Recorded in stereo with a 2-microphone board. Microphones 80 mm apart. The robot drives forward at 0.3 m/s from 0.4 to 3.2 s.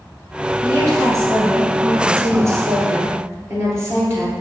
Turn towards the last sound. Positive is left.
turn(degrees=-35)  # may be behind; listen again after turning